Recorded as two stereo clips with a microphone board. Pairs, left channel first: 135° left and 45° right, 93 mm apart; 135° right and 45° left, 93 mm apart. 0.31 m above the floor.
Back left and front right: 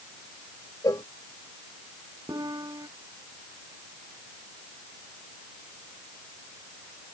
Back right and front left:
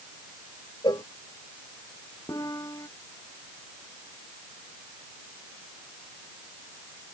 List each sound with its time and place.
0.8 s a cowbell: 175° right
2.3 s a piano: 90° right